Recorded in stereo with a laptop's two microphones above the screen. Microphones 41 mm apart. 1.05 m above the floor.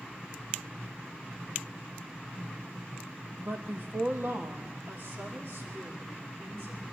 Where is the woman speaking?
40° right (ahead or behind), 0.9 m; by 6.8 s 65° right (ahead or behind), 4.5 m.